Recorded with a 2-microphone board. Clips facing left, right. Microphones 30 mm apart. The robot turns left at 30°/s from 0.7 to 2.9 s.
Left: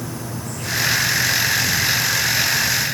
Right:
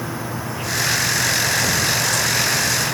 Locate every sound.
0.0 s an insect: 20° right; by 2.9 s 90° right